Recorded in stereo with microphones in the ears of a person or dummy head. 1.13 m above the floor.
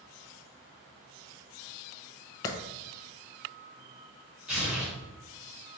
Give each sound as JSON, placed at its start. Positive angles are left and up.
{"t": 2.5, "sound": "a clap", "side_deg": 20, "distance_m": 0.5}
{"t": 4.5, "sound": "tearing paper", "side_deg": -5, "distance_m": 1.5}